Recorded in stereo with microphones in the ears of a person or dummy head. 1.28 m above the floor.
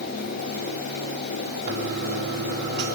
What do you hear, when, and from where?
1.7 s a toilet flushing: 65° right (ahead or behind), 1.8 m